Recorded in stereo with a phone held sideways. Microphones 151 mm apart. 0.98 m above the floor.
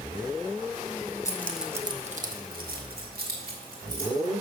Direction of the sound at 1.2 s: 20° left (ahead or behind).